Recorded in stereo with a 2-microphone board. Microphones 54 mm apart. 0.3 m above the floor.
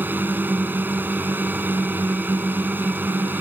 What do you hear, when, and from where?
0.0 s a drone: 35° right (ahead or behind)